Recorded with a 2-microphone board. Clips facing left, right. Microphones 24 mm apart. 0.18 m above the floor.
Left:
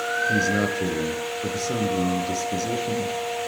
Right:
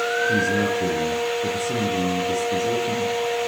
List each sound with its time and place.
0.3 s a man speaking: 55° left (ahead or behind), 4 m